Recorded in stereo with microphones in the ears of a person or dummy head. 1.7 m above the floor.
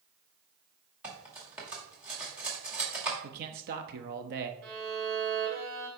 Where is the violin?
45° right (ahead or behind), 2.5 m.